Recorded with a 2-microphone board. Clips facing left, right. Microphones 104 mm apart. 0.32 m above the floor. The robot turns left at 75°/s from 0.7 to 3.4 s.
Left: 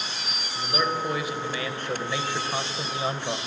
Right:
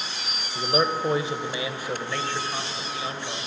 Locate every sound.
0.6 s a man speaking: 80° right, 1.0 m; by 3.4 s 80° left, 1.0 m